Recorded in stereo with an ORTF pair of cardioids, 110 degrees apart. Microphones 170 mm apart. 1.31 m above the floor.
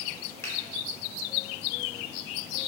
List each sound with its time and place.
0.4 s a finger snap: 15° left, 0.9 m